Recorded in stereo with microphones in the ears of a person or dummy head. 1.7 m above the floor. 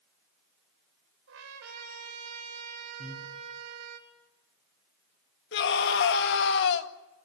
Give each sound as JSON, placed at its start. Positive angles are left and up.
{"t": 1.3, "sound": "a trumpet", "side_deg": -75, "distance_m": 3.5}
{"t": 3.0, "sound": "breathing", "side_deg": 45, "distance_m": 8.0}
{"t": 5.5, "sound": "a scream", "side_deg": 65, "distance_m": 2.0}